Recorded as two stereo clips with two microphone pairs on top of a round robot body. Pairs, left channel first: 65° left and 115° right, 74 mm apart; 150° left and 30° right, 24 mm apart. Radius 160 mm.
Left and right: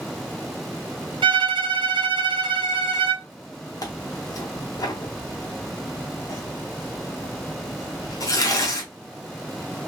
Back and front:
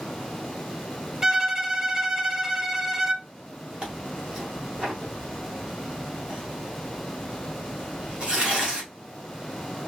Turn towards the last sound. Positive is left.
turn(degrees=20)